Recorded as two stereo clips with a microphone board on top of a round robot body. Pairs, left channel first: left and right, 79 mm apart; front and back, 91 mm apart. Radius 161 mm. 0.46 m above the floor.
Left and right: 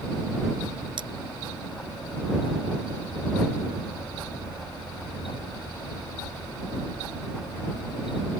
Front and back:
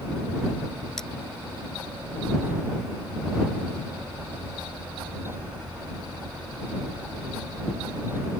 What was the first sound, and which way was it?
Cutlery clinking, 85° right.